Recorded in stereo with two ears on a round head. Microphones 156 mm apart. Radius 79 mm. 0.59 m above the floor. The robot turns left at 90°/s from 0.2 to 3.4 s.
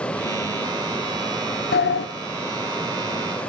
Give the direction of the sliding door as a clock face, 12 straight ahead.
8 o'clock.